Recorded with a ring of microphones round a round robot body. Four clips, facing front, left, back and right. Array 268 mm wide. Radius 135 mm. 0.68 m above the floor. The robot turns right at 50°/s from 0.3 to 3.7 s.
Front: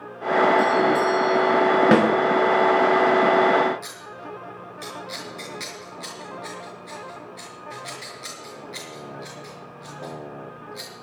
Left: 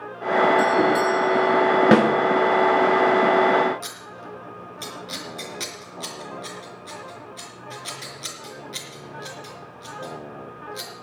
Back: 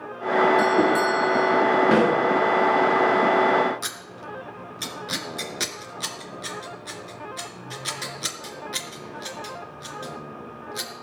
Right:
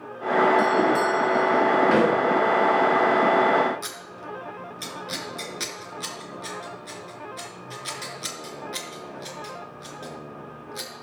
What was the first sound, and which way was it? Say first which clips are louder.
A doorbell: left 2 dB, even; 145° left.